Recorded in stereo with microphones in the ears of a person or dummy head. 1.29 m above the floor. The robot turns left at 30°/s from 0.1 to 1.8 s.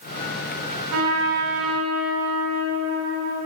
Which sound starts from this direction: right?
A trumpet, at 0.9 s.